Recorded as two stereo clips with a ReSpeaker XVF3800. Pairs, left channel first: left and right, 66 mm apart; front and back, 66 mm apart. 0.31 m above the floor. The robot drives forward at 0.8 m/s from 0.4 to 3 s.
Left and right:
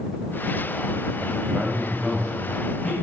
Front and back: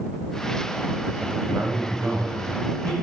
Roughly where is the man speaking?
Behind right.